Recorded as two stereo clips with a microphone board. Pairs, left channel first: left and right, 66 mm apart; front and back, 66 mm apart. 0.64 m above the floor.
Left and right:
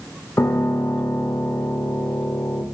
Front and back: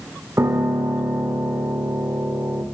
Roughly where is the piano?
Behind left.